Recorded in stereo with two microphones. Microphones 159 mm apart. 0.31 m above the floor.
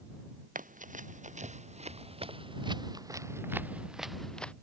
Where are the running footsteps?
55° right (ahead or behind); by 4.5 s 5° left (ahead or behind).